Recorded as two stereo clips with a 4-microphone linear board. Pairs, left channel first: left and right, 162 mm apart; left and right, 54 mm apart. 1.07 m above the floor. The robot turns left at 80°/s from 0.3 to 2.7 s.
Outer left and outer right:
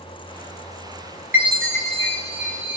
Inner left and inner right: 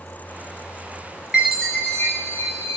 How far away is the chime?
About 0.7 m.